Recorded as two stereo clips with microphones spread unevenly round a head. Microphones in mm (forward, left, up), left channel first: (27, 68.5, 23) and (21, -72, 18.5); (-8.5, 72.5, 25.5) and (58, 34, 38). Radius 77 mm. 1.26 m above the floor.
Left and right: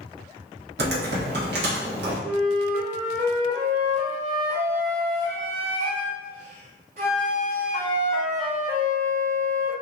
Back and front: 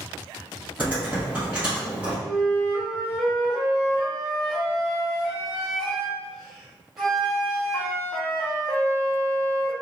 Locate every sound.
0.8 s typing on a keyboard: 105° right, 0.8 m
2.2 s a flute: 110° right, 0.7 m